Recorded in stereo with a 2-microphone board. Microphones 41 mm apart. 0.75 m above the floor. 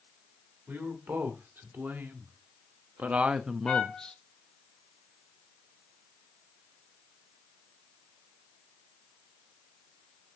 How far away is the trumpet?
About 1.6 m.